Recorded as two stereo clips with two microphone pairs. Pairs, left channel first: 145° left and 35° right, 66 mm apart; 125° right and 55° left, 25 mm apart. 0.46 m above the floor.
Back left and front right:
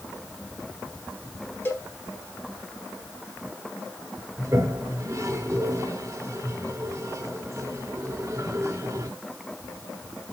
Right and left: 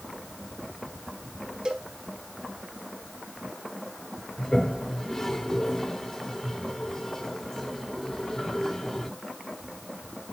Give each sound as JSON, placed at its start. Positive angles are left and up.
{"t": 1.6, "sound": "a cowbell", "azimuth_deg": 100, "distance_m": 1.8}
{"t": 4.4, "sound": "a toilet flushing", "azimuth_deg": -60, "distance_m": 1.4}